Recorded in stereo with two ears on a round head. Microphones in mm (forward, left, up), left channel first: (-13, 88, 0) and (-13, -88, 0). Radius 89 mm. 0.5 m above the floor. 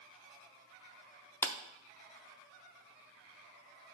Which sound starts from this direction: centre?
A clap, at 1.4 s.